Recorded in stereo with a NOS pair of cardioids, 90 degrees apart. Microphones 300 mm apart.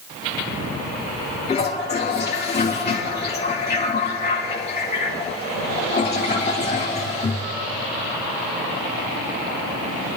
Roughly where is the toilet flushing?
Ahead left.